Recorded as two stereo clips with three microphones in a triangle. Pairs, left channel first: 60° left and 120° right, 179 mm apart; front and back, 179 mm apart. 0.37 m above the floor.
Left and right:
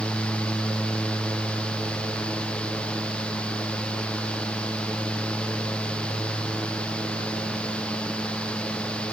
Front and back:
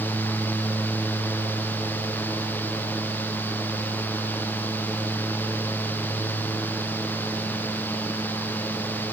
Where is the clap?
I don't hear a clap.